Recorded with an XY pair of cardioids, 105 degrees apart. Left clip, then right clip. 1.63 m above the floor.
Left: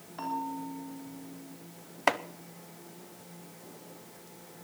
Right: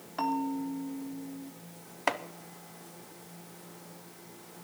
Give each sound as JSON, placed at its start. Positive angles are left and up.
{"t": 0.2, "sound": "a bell", "azimuth_deg": -45, "distance_m": 3.5}
{"t": 2.1, "sound": "chopping", "azimuth_deg": 25, "distance_m": 0.8}